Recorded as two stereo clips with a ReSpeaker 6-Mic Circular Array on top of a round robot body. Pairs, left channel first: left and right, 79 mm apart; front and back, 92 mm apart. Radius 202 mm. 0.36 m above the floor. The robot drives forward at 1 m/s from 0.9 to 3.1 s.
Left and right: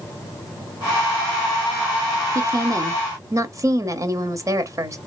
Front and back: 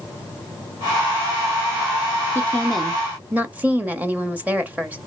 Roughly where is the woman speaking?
Ahead right.